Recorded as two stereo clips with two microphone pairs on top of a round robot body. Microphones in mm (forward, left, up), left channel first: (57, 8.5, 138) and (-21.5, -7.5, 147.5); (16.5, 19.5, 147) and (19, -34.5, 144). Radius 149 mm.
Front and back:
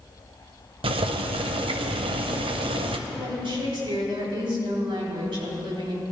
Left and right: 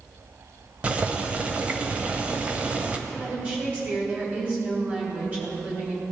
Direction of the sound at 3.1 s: 150° right.